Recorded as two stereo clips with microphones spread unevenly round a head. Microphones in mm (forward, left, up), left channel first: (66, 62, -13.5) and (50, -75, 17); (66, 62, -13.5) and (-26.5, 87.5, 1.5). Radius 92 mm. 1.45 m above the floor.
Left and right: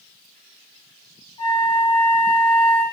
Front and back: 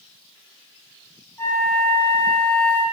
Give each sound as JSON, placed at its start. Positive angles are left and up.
{"t": 1.4, "sound": "a flute", "azimuth_deg": 50, "distance_m": 1.4}